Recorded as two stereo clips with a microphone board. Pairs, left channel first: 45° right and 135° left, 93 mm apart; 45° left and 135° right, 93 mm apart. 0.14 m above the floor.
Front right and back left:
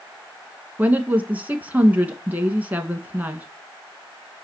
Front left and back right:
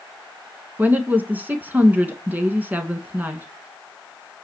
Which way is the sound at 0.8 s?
Straight behind.